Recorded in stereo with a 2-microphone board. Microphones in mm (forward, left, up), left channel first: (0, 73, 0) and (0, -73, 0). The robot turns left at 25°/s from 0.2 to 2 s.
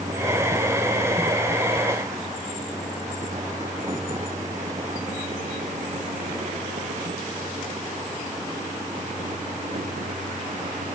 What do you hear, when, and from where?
Only background noise.